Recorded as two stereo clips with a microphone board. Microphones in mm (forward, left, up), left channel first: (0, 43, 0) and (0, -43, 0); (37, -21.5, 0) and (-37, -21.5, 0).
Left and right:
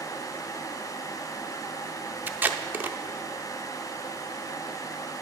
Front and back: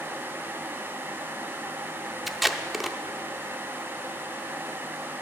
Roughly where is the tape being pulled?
Right.